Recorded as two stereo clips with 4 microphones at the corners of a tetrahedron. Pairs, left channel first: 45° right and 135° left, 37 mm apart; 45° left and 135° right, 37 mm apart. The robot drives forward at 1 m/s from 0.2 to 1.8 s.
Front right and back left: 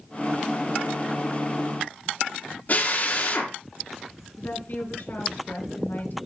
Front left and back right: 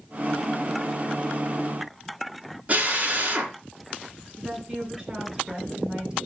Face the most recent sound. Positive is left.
turn(degrees=-60)